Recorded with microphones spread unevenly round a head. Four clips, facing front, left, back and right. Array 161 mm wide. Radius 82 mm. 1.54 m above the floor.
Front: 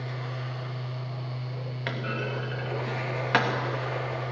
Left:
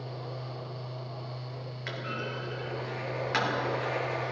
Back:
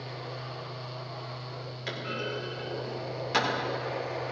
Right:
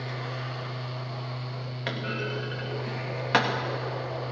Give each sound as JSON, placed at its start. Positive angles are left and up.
{"t": 1.9, "sound": "a clunk", "azimuth_deg": -55, "distance_m": 3.0}